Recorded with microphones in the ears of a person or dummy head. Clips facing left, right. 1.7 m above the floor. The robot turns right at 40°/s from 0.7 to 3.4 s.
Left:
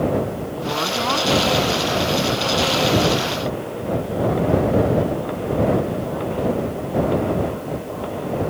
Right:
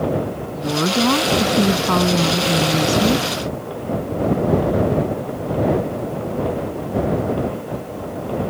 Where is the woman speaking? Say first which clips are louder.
Right 7 dB; 155° right; by 3.3 s 50° right.